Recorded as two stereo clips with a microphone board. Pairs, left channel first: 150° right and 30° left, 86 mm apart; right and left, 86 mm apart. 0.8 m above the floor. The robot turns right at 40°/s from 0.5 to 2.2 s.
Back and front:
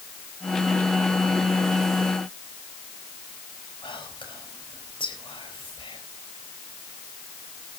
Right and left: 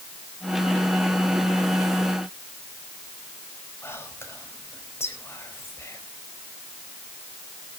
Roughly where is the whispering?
Behind right.